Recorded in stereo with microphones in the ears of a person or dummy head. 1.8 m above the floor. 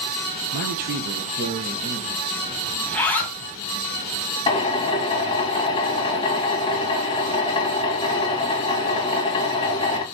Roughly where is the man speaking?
Right.